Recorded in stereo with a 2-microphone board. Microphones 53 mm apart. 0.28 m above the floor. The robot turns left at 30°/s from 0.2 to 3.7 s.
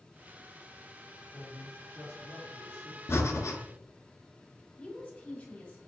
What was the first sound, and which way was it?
A man speaking, 65° left.